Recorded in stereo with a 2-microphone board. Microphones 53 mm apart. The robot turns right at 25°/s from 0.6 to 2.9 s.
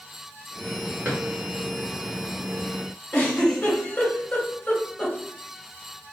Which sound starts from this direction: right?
A drawer, at 1.1 s.